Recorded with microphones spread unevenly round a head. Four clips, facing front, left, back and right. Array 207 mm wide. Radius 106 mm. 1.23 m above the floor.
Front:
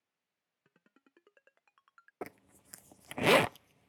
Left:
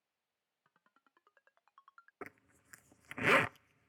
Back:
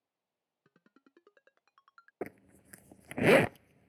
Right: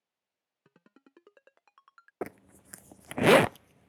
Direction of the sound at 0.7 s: 115° right.